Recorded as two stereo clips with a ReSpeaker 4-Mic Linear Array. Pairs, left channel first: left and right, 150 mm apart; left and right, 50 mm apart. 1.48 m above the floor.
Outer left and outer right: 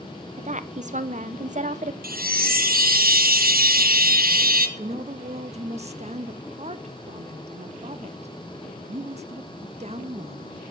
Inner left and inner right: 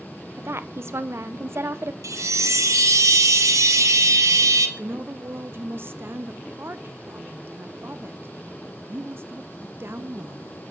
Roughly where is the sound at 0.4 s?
Right.